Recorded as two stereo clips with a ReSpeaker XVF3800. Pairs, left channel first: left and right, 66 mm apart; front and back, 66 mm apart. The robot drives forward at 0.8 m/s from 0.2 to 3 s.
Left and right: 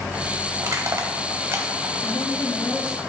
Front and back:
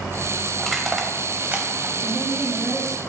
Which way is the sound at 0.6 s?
85° right.